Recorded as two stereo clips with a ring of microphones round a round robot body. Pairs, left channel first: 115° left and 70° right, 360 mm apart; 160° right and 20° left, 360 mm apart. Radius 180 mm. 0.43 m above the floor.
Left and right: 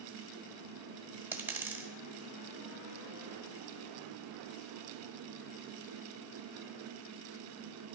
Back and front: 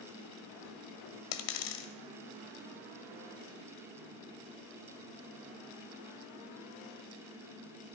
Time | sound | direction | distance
1.3 | a dropped coin | 150° right | 1.0 m